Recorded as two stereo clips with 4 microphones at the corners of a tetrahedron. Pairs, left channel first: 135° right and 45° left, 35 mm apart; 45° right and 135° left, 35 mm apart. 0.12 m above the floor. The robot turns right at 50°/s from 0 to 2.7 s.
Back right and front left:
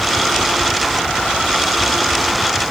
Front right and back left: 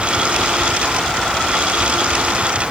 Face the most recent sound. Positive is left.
No sound to turn to.